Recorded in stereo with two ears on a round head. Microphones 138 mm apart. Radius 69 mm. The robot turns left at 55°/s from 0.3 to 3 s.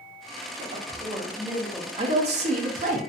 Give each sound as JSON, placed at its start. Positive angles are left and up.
{"t": 0.6, "sound": "a woman speaking", "azimuth_deg": -115, "distance_m": 0.8}
{"t": 2.0, "sound": "a man speaking", "azimuth_deg": -45, "distance_m": 0.7}